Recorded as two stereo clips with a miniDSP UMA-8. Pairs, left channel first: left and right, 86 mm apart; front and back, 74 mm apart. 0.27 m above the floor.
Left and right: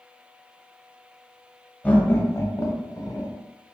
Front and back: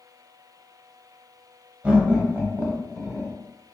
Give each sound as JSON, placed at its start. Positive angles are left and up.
{"t": 1.8, "sound": "laughter", "azimuth_deg": 140, "distance_m": 1.0}